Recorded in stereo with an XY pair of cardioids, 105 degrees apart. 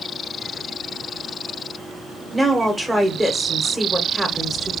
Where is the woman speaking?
5° right, 1.0 m.